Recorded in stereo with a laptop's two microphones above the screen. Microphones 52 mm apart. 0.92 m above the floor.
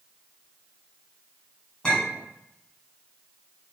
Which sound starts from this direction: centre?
A clink, at 1.8 s.